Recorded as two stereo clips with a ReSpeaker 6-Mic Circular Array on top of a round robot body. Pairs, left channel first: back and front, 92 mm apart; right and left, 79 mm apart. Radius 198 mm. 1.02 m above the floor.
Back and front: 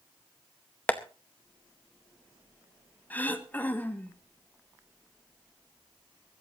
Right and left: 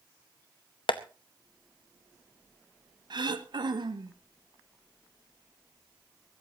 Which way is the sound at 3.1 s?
110° left.